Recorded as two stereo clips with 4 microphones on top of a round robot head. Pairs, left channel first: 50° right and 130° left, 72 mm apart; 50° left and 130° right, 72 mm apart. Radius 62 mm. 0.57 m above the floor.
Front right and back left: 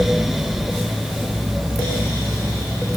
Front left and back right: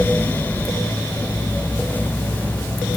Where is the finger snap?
No finger snap in this recording.